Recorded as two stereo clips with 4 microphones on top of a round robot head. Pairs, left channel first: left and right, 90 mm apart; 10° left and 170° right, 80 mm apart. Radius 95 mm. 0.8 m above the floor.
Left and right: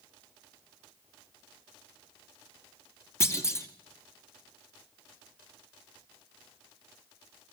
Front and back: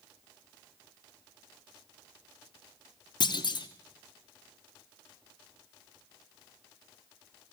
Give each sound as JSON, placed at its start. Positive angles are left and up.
{"t": 3.2, "sound": "a clunk", "azimuth_deg": 30, "distance_m": 2.5}